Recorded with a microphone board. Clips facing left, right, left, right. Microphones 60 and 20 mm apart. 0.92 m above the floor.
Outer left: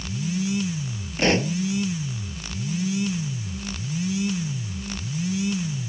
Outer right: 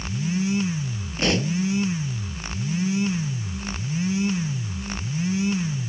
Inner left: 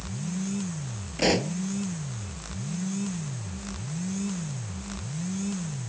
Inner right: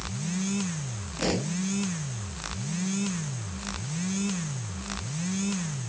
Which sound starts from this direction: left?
A pop, at 1.2 s.